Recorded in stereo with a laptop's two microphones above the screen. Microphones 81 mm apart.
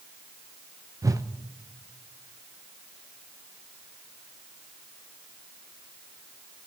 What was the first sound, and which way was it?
A whoosh, 45° right (ahead or behind).